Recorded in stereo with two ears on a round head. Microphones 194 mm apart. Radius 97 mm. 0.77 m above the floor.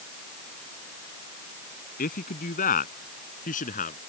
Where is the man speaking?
40° left (ahead or behind).